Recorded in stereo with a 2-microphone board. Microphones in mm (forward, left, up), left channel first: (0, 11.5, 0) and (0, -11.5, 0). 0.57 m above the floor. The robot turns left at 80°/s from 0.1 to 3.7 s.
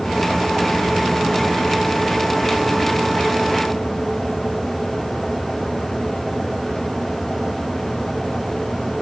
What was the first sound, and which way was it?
Only background noise.